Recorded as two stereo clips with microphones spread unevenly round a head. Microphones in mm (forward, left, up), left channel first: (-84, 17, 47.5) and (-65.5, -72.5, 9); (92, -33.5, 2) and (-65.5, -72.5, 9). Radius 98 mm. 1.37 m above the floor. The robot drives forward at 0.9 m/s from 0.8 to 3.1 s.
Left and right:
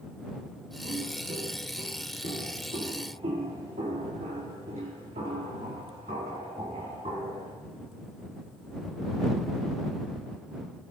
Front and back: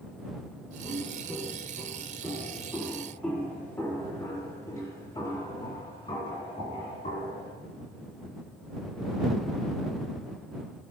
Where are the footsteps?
70° right, 5.5 m; by 7.5 s 30° right, 5 m.